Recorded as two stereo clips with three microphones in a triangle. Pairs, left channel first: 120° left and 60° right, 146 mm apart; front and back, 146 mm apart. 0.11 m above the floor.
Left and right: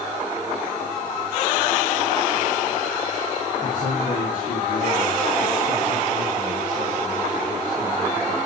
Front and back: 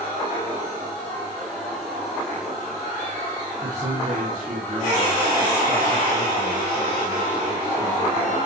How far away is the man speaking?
About 8.5 m.